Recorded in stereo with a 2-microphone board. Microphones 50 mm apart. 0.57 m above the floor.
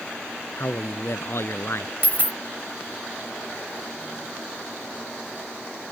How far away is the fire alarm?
I don't hear a fire alarm.